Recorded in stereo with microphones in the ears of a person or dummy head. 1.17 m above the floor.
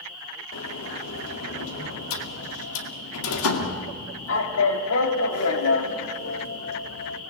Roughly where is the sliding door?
Left.